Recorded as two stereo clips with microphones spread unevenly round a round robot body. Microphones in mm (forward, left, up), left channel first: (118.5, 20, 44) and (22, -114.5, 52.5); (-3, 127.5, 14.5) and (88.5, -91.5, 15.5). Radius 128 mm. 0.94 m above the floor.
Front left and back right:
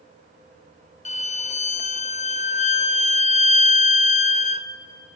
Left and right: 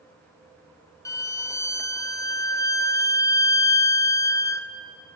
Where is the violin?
40° left, 0.7 m.